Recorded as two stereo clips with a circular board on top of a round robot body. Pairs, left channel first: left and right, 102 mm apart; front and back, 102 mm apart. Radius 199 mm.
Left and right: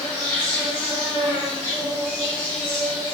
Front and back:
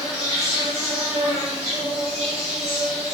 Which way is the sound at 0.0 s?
165° left.